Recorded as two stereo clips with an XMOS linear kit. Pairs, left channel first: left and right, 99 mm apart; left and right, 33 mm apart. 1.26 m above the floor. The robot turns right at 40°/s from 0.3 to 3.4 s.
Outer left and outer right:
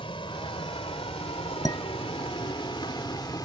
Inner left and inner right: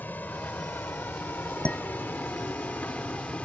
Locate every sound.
0.0 s a vehicle: 65° left (ahead or behind); by 3.5 s 45° left (ahead or behind)
1.6 s dishes clattering: 35° left (ahead or behind); by 2.6 s centre (ahead or behind)